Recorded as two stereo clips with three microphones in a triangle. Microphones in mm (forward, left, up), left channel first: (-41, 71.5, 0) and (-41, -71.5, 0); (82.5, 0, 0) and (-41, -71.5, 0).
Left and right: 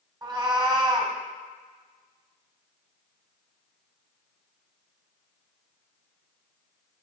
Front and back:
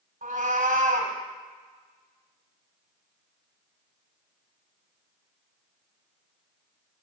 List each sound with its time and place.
0.2 s a cat meowing: 150° right, 1.5 m